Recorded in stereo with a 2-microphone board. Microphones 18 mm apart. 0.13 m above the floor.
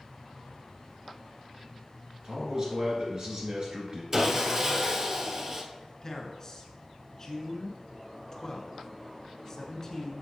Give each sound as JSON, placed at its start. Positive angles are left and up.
{"t": 2.2, "sound": "a man speaking", "side_deg": -45, "distance_m": 1.8}
{"t": 4.1, "sound": "sawing", "side_deg": -30, "distance_m": 1.2}
{"t": 6.0, "sound": "a man speaking", "side_deg": 30, "distance_m": 1.3}